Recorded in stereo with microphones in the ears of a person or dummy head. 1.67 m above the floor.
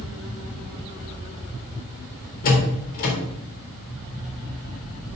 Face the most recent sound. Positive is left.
turn(degrees=50)  # may be behind; listen again after turning